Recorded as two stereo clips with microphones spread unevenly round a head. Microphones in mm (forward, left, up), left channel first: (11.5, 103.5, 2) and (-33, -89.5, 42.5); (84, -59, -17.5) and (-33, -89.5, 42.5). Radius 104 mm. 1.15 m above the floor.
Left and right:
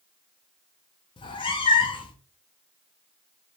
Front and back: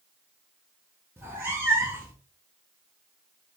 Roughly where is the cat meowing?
Behind left.